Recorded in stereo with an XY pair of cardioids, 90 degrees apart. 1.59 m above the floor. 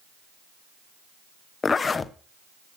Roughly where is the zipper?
Ahead left.